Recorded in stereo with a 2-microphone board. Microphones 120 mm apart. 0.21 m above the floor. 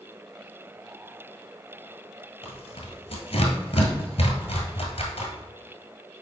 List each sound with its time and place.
2.4 s tearing paper: 65° left (ahead or behind), 1.5 m